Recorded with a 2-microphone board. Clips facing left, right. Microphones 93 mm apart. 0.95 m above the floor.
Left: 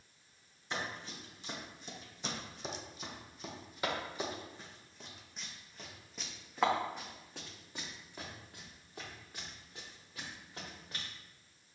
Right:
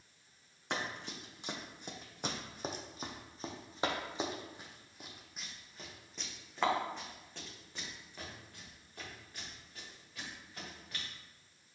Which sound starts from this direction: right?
Running footsteps, at 0.7 s.